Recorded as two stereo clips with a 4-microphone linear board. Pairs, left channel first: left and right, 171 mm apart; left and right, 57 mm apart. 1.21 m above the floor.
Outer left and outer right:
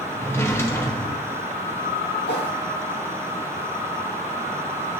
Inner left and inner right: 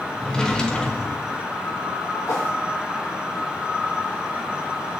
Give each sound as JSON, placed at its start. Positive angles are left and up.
{"t": 0.2, "sound": "a drawer", "side_deg": 15, "distance_m": 0.9}
{"t": 2.3, "sound": "a whoosh", "side_deg": 75, "distance_m": 1.4}